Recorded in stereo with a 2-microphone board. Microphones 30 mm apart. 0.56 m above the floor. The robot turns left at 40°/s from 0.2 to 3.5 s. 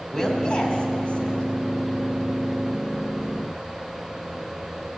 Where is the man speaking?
25° left (ahead or behind), 2 m; by 1.4 s 55° left (ahead or behind), 2 m.